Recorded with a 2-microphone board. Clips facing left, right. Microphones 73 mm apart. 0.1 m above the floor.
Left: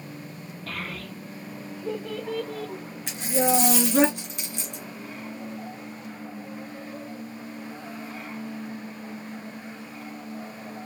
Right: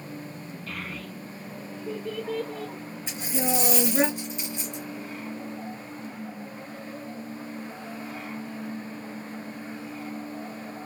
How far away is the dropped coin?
About 2 m.